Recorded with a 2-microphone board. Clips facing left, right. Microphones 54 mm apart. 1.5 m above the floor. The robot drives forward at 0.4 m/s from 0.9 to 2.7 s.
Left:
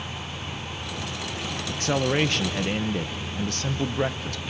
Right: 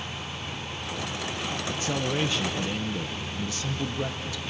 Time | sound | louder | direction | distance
1.7 | a man speaking | left 6 dB | 60° left (ahead or behind) | 0.7 m